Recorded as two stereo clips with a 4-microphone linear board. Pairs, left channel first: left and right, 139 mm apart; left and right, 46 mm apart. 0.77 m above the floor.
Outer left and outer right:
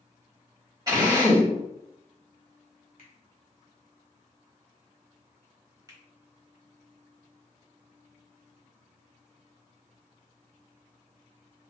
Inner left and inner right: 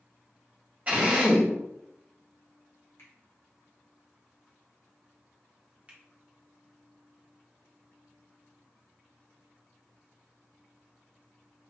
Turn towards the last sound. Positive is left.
turn(degrees=-25)  # may be behind; listen again after turning